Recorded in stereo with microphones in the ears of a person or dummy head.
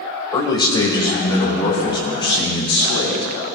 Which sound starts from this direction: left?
A man speaking, at 0.3 s.